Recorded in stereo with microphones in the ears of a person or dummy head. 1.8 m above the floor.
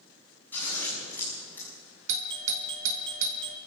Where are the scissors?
5° left (ahead or behind), 7 m.